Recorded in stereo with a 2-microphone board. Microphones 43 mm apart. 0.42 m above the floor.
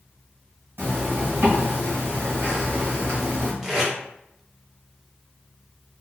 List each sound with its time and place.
0.8 s a zipper: 60° right (ahead or behind), 1.2 m
3.6 s tape being pulled: 10° right (ahead or behind), 0.8 m